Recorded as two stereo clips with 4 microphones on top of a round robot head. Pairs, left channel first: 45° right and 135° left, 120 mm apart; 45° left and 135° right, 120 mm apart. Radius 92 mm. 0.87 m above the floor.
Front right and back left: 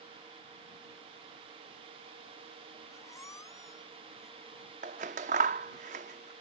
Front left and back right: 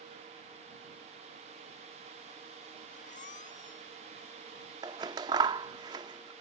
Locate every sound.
2.9 s a squeak: 25° left
4.8 s scissors: 165° left